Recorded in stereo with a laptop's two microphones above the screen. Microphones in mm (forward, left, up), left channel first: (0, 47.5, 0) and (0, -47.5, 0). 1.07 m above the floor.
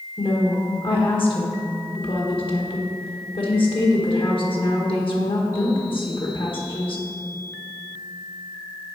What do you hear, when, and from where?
0.2 s a woman speaking: 60° left (ahead or behind), 1.4 m